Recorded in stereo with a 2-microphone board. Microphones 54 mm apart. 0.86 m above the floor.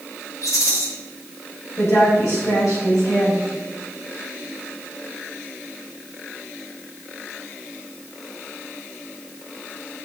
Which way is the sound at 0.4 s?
65° left (ahead or behind).